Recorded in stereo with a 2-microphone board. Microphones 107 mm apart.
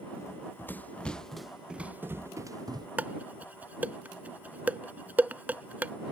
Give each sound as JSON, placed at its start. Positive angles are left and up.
{"t": 0.2, "sound": "running footsteps", "side_deg": 25}
{"t": 3.0, "sound": "dishes clattering", "side_deg": -15}